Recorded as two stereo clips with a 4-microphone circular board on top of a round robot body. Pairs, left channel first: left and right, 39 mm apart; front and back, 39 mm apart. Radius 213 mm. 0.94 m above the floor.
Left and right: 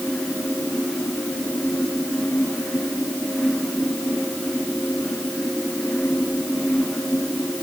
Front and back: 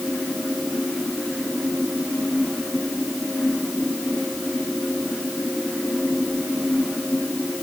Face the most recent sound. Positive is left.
No sound to turn to.